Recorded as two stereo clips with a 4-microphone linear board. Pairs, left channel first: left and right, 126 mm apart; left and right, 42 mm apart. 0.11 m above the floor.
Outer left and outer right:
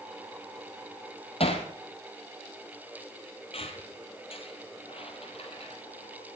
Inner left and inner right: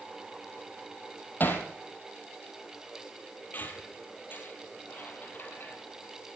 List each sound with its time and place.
1.4 s hammering: 50° left (ahead or behind), 1.9 m
3.5 s a squeak: 50° left (ahead or behind), 1.4 m